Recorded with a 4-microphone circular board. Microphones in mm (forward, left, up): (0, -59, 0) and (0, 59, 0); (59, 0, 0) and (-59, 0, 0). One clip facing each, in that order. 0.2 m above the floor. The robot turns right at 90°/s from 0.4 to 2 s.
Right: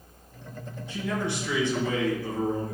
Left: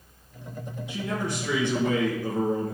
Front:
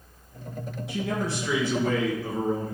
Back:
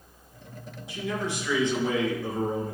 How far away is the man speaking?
About 3.5 m.